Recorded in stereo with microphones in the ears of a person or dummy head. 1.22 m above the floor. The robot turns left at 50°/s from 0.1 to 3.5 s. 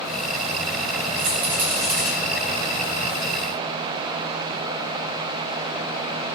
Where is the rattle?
60° right (ahead or behind), 0.8 m; by 2.1 s 15° right (ahead or behind), 0.8 m.